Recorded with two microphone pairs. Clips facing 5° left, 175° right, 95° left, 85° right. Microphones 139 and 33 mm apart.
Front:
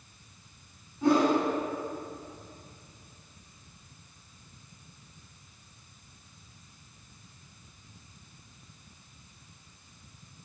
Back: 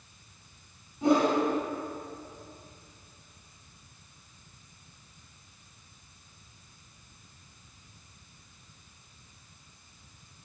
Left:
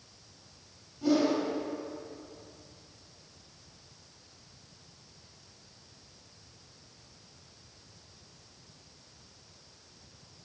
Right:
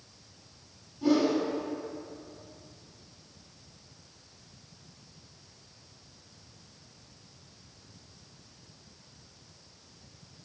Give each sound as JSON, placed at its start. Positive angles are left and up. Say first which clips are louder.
{"t": 1.0, "sound": "a whoosh", "louder": "even, right 1 dB", "azimuth_deg": -150, "distance_m": 1.2}